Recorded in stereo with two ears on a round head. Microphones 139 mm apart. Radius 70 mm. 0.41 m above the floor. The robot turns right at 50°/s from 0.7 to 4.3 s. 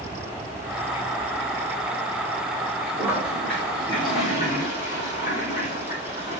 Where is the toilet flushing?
20° right, 8 m; by 6.4 s 45° left, 8 m.